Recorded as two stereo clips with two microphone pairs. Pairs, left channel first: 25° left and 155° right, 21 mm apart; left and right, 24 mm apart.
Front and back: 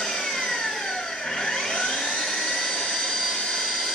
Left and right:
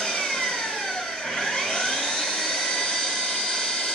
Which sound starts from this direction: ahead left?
An engine running, at 0.0 s.